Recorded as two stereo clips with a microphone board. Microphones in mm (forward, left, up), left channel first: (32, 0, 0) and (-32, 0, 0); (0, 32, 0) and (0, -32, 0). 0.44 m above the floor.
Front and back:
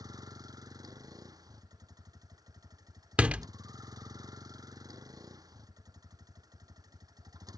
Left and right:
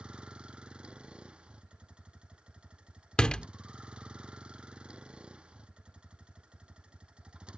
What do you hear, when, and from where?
0.0 s a vehicle: 165° right
3.2 s a door slam: 145° left